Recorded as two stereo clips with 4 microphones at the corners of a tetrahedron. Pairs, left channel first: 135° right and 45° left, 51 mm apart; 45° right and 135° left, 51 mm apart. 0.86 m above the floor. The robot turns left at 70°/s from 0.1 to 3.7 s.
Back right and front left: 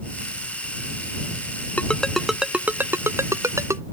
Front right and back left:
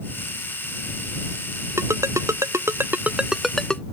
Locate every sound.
1.8 s a ringtone: 165° left; by 3.8 s 30° left